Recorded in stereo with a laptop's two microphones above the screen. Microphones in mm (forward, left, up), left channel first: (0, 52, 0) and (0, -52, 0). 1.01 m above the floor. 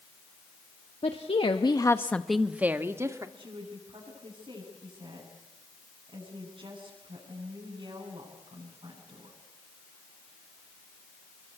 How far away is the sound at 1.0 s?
About 1.7 m.